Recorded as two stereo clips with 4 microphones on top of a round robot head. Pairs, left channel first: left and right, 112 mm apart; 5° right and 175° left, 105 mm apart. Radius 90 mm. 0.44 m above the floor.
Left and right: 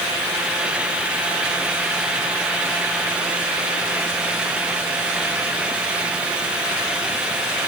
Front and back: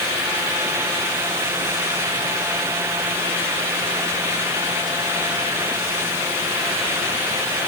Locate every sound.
Only background noise.